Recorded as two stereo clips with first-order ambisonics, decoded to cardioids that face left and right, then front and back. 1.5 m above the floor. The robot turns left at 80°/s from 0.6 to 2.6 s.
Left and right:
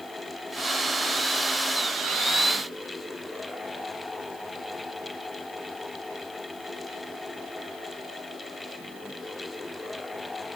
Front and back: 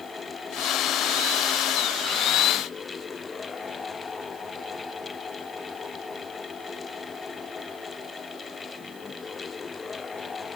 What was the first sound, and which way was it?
Only background noise.